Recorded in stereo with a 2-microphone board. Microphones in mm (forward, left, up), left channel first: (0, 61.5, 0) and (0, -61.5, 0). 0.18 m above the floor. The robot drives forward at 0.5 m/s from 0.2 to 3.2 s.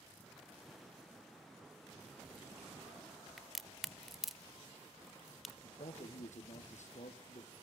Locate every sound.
3.4 s a crack: 5° right (ahead or behind), 1.0 m
5.6 s a man speaking: 70° left (ahead or behind), 4 m